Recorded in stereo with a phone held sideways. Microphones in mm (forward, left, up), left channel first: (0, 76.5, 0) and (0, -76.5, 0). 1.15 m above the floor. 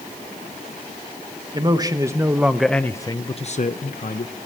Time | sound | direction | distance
1.5 | a man speaking | 30° right (ahead or behind) | 1.6 m